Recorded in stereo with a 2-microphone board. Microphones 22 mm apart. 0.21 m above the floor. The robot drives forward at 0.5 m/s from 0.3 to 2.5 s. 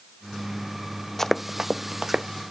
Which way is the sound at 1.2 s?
15° left (ahead or behind).